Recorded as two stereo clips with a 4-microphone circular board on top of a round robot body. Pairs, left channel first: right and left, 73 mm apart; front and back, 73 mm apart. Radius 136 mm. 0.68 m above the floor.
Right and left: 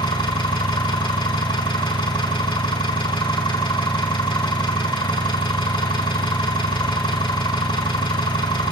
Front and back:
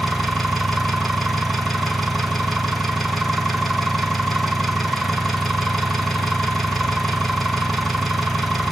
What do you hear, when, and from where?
0.0 s an engine running: 90° right, 4 m